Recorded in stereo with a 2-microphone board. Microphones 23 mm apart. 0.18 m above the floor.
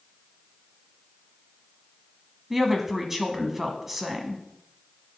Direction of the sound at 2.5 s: 10° right (ahead or behind).